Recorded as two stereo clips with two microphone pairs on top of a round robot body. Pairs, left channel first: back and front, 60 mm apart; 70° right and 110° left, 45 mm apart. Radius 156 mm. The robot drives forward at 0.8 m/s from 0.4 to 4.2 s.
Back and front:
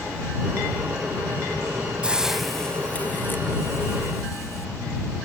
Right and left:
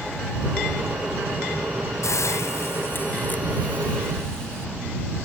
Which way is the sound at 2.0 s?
75° right.